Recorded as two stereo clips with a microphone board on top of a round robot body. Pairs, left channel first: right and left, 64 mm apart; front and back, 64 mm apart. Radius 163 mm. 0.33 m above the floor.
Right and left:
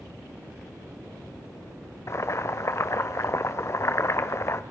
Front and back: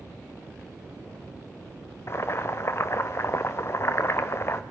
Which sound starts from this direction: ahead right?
Boiling, at 2.1 s.